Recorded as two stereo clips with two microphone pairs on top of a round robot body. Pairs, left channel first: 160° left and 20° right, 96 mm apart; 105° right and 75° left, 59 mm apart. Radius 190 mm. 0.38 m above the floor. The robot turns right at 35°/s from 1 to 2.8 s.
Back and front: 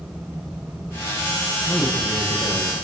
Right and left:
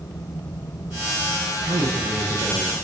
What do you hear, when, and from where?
1.6 s a man speaking: 65° left, 8 m; by 2.8 s 105° left, 8 m